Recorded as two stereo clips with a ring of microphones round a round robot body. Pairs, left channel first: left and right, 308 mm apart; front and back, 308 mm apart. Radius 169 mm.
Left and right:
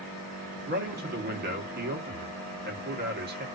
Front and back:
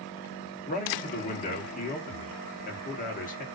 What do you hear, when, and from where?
0.7 s a man speaking: 50° right, 0.9 m